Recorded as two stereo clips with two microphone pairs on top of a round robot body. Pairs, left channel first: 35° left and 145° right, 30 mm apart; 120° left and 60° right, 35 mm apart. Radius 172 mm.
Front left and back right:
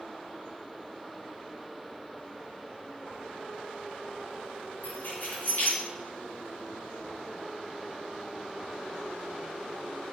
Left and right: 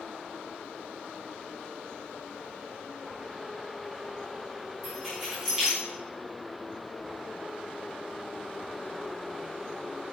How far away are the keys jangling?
About 4 m.